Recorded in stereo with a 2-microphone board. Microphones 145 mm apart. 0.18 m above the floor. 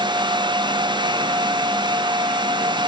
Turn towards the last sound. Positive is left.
No sound to turn to.